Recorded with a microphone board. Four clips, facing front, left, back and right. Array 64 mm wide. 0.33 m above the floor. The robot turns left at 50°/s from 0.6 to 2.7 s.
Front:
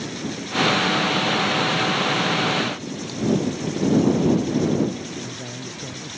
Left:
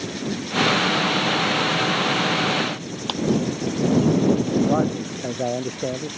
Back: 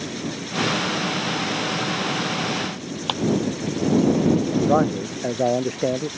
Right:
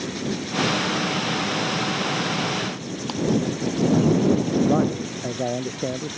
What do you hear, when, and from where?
3.1 s a clap: 165° left
4.7 s a man speaking: 170° left